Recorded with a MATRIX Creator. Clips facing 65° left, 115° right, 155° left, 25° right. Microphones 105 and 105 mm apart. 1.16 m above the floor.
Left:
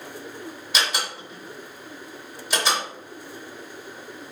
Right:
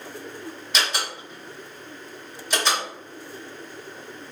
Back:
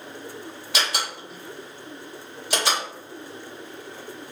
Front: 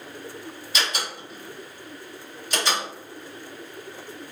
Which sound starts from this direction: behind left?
A door slam, at 0.7 s.